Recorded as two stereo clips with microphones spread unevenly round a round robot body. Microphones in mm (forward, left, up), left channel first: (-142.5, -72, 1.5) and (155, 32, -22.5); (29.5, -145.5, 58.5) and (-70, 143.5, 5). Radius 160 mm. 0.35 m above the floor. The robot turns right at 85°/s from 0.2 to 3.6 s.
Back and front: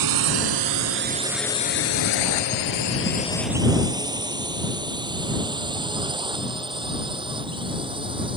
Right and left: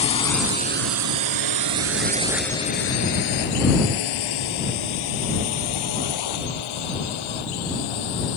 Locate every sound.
0.0 s a drone: straight ahead; by 8.4 s 55° right